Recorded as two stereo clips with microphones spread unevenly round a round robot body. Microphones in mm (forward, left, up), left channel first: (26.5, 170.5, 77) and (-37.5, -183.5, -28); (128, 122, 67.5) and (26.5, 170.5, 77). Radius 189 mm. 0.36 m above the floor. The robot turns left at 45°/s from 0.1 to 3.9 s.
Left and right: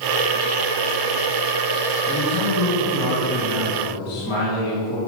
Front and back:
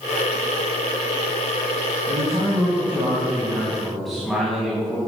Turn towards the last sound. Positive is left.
turn(degrees=60)